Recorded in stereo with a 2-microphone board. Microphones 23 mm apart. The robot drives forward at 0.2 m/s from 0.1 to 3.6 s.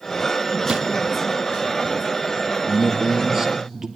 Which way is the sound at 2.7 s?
10° right (ahead or behind).